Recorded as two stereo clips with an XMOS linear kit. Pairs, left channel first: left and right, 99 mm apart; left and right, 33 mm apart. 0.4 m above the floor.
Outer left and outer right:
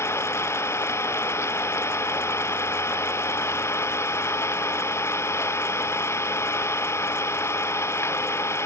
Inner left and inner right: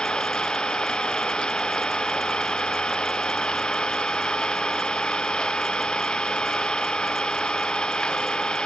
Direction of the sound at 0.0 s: 25° left (ahead or behind).